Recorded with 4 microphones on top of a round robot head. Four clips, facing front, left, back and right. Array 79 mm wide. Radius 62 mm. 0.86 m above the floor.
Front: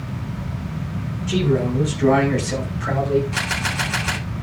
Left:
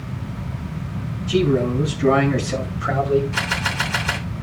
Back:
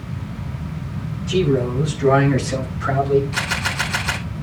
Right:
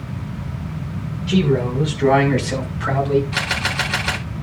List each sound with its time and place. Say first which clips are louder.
1.3 s a man speaking: even, back 2 dB; 70° right, 7 m; by 3.2 s 85° right, 7.5 m
3.3 s a camera shutter: right 1 dB, back 1 dB; 75° right, 9 m